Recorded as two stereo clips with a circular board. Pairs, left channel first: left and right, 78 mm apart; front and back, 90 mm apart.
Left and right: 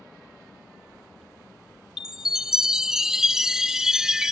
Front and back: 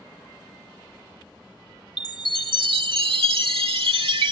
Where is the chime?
170° right.